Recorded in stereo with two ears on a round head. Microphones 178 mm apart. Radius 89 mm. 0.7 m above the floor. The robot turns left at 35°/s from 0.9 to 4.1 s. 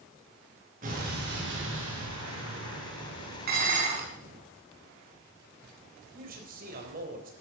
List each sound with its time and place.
0.8 s an explosion: 45° right, 5 m; by 4.4 s 155° right, 5 m
3.5 s dishes clattering: 50° right (ahead or behind), 4.5 m; by 4.1 s 30° right (ahead or behind), 4.5 m
6.1 s a man speaking: 50° right (ahead or behind), 4 m